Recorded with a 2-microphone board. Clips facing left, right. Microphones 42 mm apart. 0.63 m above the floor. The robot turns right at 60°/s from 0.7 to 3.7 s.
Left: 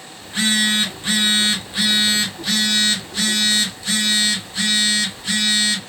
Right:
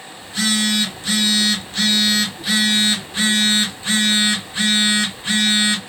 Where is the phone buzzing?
85° left, 0.7 m; by 5.8 s 95° right, 0.7 m.